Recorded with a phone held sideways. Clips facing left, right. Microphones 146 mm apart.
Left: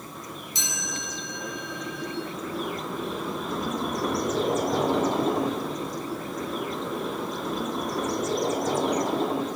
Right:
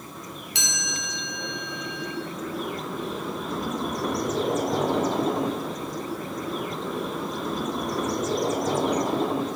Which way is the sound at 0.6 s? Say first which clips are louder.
Right 1 dB; 70° right (ahead or behind).